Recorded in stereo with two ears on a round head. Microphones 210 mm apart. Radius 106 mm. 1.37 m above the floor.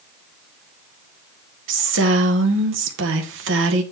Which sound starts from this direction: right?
A woman speaking, at 1.7 s.